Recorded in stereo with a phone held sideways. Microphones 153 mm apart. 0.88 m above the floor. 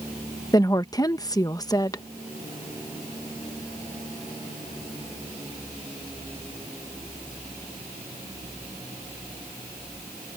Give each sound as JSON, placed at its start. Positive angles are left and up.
{"t": 0.5, "sound": "a woman speaking", "side_deg": 25}